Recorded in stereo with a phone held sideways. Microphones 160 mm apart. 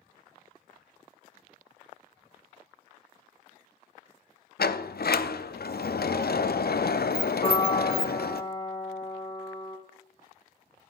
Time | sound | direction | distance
4.6 | a sliding door | 80° left | 0.6 m
7.4 | a piano | 35° left (ahead or behind) | 3 m